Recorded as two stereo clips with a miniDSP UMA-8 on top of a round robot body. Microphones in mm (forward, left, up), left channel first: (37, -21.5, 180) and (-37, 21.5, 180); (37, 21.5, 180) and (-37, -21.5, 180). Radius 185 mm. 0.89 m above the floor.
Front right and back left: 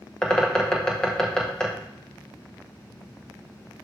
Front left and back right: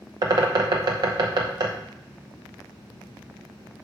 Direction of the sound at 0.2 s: 110° right.